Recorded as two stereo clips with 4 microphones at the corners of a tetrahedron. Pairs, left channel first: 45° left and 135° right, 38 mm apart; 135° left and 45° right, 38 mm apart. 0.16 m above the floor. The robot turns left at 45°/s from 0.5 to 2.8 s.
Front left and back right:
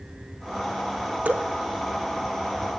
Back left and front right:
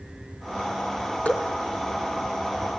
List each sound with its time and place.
1.2 s dripping: 175° right, 1.3 m; by 1.5 s 175° left, 1.3 m